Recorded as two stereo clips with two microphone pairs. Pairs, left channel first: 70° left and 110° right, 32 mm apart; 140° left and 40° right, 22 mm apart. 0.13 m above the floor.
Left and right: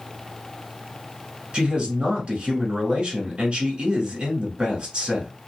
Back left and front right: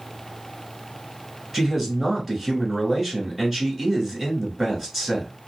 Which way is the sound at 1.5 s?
105° right.